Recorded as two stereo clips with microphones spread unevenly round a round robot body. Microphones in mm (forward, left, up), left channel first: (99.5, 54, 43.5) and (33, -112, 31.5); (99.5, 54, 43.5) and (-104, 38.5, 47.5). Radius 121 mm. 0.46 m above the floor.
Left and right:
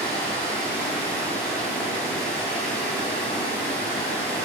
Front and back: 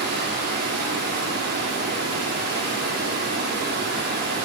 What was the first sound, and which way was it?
Running water, 150° left.